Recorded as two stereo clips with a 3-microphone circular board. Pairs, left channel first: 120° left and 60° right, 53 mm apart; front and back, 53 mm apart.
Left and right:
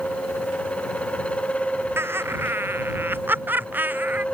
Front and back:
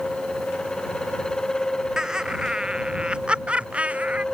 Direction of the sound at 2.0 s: 105° right.